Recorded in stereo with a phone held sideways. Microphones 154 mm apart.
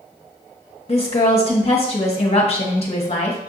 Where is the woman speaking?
40° left (ahead or behind), 1.0 m.